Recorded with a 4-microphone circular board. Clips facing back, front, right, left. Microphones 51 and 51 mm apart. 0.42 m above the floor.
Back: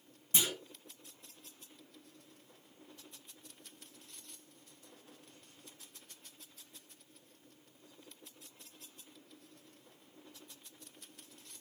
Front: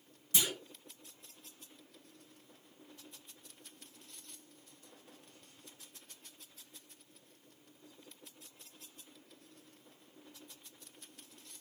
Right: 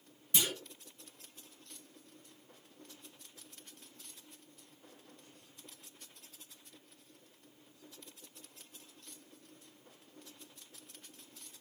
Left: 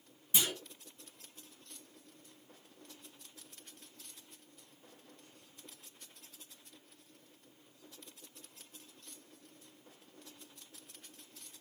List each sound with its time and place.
0.3 s a clunk: 150° left, 1.3 m